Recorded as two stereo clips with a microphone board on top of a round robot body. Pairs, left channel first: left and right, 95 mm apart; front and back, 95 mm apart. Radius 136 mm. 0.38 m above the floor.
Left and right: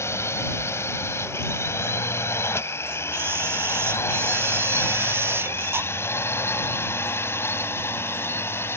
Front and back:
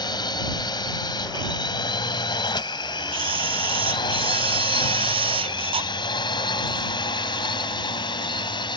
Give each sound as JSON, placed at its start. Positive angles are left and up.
{"t": 0.0, "sound": "a drone", "azimuth_deg": 30}
{"t": 3.1, "sound": "a camera shutter", "azimuth_deg": -155}